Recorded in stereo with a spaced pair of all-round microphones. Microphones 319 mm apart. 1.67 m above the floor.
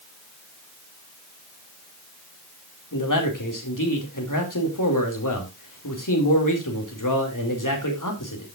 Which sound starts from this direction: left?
A man speaking, at 2.9 s.